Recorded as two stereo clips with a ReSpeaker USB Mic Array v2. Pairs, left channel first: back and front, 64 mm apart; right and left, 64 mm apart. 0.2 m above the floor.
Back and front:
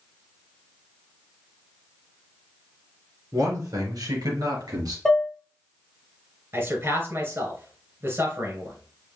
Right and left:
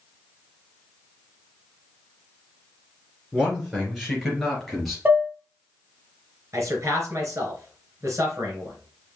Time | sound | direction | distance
3.3 | a man speaking | 10° left | 3.5 m
5.0 | dishes clattering | 110° left | 0.9 m
6.5 | a man speaking | 50° left | 3 m